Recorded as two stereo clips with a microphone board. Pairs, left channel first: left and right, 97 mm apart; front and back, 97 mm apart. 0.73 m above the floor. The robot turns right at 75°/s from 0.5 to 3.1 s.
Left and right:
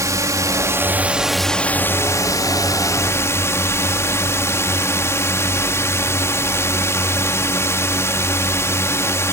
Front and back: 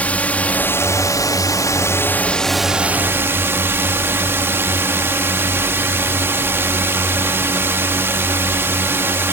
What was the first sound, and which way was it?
A drone, 65° right.